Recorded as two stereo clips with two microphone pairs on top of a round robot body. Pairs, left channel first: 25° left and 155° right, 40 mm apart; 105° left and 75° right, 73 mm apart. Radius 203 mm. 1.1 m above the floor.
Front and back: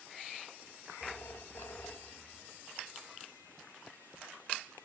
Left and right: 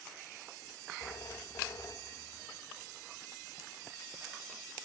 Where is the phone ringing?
60° left, 1.2 m.